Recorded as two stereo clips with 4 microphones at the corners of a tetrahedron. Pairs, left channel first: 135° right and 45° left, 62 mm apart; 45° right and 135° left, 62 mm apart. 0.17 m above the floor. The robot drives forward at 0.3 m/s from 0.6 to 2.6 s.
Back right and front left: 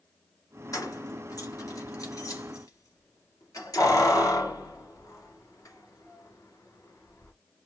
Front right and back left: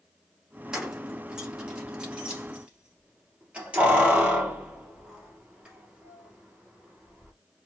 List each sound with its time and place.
0.7 s keys jangling: 145° right, 2 m; by 7.3 s 155° right, 2.5 m